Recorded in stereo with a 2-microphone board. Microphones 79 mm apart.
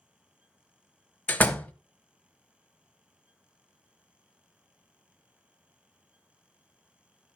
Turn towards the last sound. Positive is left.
turn(degrees=20)  # may be behind; listen again after turning